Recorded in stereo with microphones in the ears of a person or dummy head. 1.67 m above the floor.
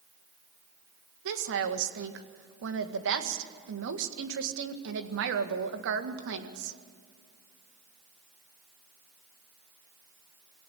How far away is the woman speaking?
About 1.8 m.